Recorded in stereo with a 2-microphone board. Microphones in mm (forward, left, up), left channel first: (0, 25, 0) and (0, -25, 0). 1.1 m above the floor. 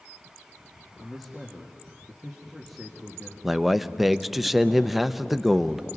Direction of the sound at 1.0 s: Centre (ahead or behind).